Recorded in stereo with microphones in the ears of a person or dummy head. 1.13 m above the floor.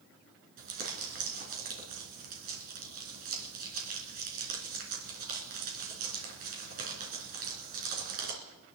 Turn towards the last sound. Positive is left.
turn(degrees=-45)  # may be behind; listen again after turning